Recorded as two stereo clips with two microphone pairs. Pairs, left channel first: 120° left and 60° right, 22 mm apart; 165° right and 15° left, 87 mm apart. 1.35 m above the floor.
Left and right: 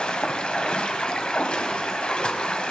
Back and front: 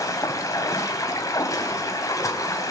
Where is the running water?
150° left, 1.9 m.